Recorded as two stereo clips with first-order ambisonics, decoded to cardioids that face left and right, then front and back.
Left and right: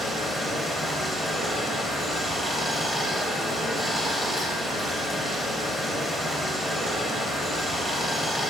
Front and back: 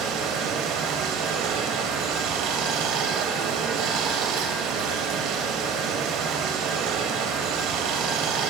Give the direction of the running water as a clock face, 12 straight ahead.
6 o'clock.